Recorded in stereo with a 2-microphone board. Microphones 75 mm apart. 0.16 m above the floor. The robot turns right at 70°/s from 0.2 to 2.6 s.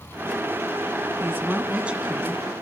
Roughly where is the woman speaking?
Right.